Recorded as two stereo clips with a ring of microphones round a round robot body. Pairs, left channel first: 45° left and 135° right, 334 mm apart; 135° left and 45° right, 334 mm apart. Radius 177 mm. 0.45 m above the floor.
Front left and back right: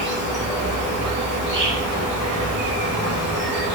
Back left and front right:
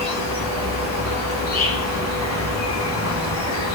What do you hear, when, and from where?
0.0 s an insect: 170° left, 1.0 m